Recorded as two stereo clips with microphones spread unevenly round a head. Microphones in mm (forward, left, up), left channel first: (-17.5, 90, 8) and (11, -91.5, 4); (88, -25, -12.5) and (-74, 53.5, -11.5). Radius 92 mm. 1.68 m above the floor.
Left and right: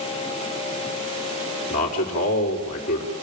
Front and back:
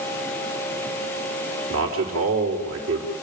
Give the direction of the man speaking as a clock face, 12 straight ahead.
7 o'clock.